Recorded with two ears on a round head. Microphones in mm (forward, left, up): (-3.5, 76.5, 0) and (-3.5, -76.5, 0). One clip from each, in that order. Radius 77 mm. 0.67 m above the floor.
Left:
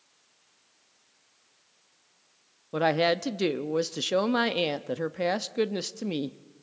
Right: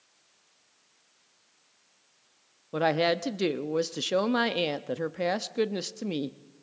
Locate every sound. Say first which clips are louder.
2.7 s a woman speaking: left 1 dB; 5° left (ahead or behind), 0.6 m